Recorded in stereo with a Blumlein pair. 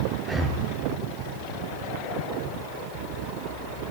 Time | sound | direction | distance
0.2 | breathing | 5° right | 0.6 m